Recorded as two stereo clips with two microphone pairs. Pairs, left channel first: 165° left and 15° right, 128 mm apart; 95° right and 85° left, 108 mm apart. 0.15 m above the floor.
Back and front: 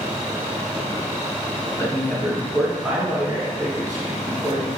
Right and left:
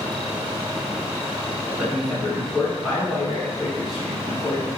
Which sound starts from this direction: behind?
A man speaking, at 1.8 s.